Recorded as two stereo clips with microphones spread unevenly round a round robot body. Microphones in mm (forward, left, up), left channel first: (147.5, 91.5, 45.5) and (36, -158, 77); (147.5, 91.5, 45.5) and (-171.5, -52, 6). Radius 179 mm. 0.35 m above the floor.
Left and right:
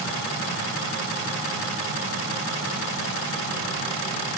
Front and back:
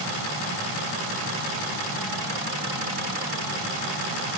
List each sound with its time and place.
Only background noise.